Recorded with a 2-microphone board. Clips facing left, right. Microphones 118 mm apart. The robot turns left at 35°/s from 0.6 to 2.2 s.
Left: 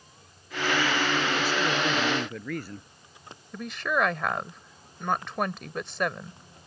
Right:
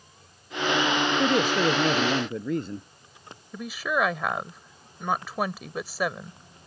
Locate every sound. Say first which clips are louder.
1.2 s a man speaking: right 5 dB; 125° right; by 2.9 s 160° right
3.5 s a woman speaking: right 1 dB; 5° right (ahead or behind)